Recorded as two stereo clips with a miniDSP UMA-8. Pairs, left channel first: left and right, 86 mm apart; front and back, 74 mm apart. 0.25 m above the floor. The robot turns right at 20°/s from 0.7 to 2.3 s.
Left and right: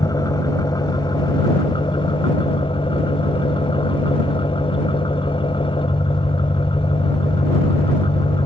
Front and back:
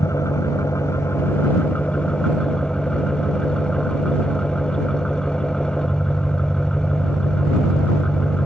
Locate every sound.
0.0 s an engine running: 50° left; by 8.5 s 80° left